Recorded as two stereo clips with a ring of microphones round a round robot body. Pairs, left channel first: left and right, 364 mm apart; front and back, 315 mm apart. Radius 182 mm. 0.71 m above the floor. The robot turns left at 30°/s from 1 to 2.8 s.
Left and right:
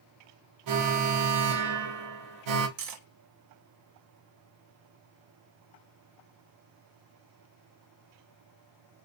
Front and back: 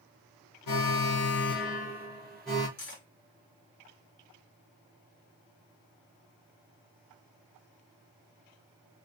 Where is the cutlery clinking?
60° right, 0.6 m.